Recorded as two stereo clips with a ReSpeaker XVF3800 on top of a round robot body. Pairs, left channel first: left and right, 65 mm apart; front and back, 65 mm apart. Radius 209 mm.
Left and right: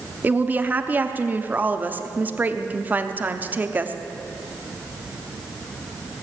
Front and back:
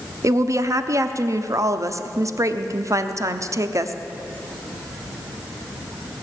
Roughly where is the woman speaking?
Behind right.